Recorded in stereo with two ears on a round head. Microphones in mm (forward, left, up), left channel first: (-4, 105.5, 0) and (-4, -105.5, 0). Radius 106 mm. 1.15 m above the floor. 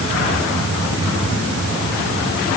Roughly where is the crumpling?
No crumpling in this recording.